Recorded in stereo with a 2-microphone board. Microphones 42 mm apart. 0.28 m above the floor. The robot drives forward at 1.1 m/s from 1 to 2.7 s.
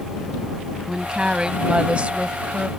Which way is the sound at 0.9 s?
20° right (ahead or behind).